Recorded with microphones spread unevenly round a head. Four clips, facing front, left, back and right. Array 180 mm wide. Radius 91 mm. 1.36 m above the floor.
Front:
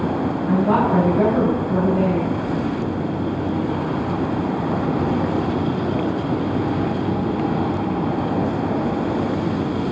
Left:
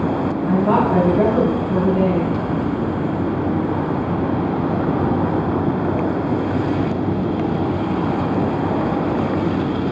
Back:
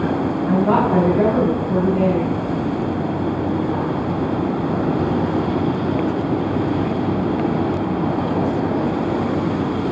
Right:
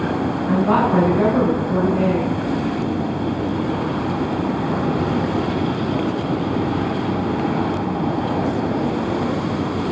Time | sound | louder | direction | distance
0.5 | a woman speaking | even, back 1 dB | 160° left | 3 m